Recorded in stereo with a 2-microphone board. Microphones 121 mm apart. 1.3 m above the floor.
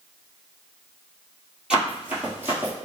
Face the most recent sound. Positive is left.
turn(degrees=-20)  # may be behind; listen again after turning